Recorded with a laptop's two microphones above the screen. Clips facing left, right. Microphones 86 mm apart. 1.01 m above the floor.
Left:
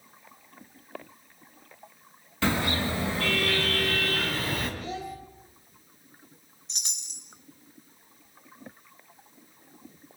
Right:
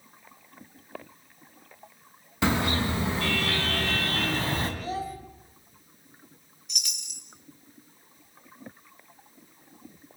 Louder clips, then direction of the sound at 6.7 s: Right 4 dB; 30° left (ahead or behind).